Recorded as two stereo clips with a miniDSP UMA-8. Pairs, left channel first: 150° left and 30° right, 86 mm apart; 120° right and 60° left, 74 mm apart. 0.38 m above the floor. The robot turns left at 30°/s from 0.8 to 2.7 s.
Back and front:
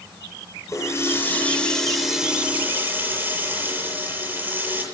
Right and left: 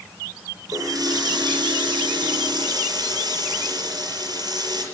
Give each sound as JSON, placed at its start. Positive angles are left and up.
{"t": 0.7, "sound": "a running tap", "azimuth_deg": 95, "distance_m": 6.5}